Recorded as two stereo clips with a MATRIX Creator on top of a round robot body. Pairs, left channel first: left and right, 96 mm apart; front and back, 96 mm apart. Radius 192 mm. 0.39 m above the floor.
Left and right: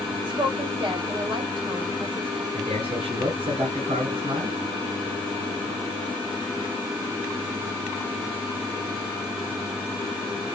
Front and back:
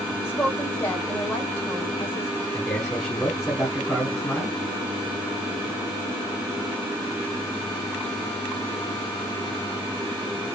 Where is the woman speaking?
70° right, 2.5 m.